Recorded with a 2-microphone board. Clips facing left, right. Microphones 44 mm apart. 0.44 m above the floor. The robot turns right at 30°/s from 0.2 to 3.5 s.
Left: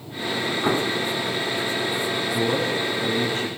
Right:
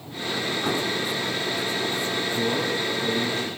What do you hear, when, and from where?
0.6 s an explosion: 25° left (ahead or behind), 0.6 m
2.3 s a man speaking: 100° left, 9.5 m; by 3.5 s 135° left, 9.5 m